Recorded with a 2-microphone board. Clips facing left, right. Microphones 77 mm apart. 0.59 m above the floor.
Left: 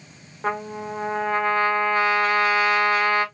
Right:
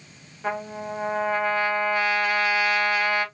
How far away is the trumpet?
About 1.7 m.